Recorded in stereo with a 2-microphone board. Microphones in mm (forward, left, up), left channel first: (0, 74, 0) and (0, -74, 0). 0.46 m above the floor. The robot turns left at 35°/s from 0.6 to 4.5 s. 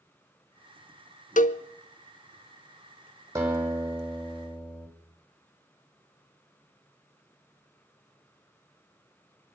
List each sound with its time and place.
1.4 s a cowbell: 65° left (ahead or behind), 0.5 m; by 1.6 s 55° left (ahead or behind), 0.5 m
3.4 s a guitar: 160° right, 4 m; by 4.9 s 160° left, 4 m